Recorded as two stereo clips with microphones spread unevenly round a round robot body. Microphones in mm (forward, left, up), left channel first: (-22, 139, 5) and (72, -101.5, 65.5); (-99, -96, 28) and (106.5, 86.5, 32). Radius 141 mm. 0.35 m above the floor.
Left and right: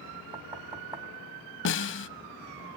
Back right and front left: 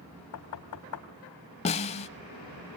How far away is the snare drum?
About 0.6 m.